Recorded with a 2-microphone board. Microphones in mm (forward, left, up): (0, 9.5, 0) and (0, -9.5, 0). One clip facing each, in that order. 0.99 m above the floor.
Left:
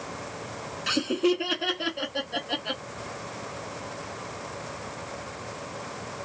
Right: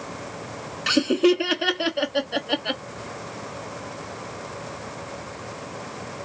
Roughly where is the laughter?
Right.